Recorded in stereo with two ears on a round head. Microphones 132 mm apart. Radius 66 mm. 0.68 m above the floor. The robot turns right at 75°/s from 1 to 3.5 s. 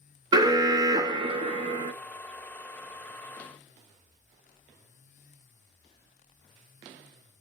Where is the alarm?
135° right, 0.6 m; by 1.9 s 65° right, 0.6 m.